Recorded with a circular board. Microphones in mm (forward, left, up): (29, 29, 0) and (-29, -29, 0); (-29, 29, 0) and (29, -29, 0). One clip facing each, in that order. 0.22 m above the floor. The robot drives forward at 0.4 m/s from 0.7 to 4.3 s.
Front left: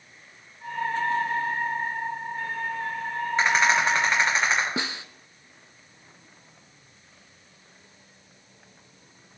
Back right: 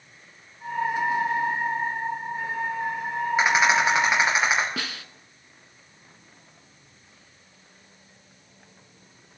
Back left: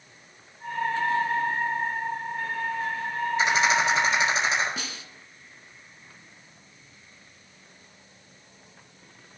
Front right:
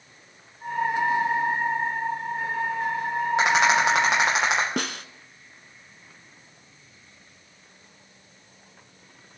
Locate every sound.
3.4 s a rattle: 50° right, 8 m; by 4.7 s 55° right, 8 m
4.8 s a snare drum: 20° right, 0.7 m